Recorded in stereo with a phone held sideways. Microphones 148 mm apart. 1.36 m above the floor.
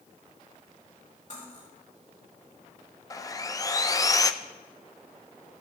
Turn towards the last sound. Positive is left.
turn(degrees=25)  # may be behind; listen again after turning